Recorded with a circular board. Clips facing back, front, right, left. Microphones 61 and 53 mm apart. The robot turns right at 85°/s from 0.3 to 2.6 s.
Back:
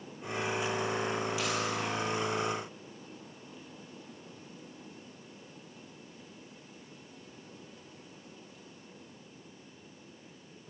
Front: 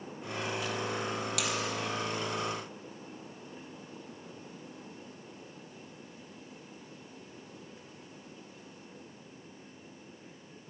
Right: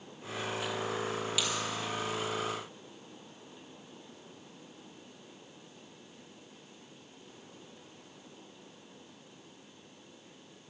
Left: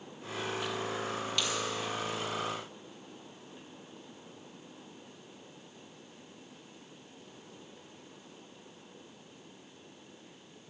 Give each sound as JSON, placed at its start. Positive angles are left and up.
{"t": 1.4, "sound": "a dropped coin", "azimuth_deg": -5, "distance_m": 1.8}